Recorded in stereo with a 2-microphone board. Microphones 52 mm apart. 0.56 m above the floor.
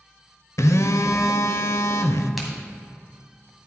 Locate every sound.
0.6 s a phone buzzing: 70° left (ahead or behind), 0.5 m
2.4 s a crack: centre (ahead or behind), 2.0 m